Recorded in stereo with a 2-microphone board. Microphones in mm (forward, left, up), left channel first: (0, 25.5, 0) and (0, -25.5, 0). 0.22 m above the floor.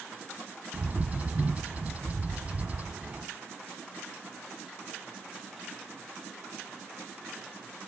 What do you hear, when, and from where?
0.7 s a bird: 30° right (ahead or behind), 1.4 m